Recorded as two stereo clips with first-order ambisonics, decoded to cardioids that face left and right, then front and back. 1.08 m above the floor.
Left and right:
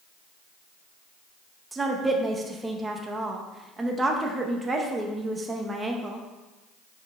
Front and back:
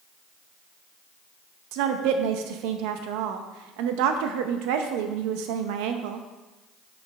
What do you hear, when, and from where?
1.7 s a woman speaking: 170° right, 0.7 m